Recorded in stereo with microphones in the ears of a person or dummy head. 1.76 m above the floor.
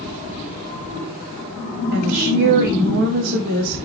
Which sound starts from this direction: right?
A woman speaking, at 1.9 s.